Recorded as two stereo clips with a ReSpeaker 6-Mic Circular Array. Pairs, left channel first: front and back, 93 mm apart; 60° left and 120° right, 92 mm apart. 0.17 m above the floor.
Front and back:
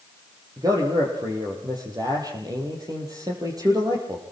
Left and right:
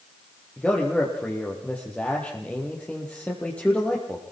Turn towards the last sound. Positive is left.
turn(degrees=135)